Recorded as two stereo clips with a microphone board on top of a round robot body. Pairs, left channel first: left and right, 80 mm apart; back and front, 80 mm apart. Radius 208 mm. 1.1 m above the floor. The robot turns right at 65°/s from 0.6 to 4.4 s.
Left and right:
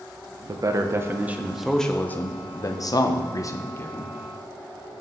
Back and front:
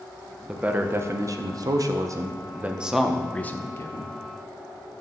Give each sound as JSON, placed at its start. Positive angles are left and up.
{"t": 0.5, "sound": "a man speaking", "azimuth_deg": -70, "distance_m": 0.9}